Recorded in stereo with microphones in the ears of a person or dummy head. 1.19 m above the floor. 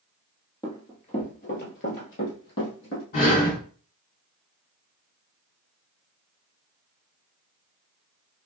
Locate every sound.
0.6 s running footsteps: 20° left (ahead or behind), 1.2 m; by 3.0 s 65° left (ahead or behind), 3 m
3.1 s breathing: 50° left (ahead or behind), 1.8 m